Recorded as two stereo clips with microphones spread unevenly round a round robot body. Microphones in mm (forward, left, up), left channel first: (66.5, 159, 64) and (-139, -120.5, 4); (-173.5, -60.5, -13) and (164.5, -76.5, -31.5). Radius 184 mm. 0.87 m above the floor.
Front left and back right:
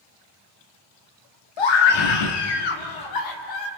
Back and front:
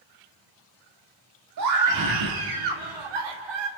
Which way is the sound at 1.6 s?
45° left.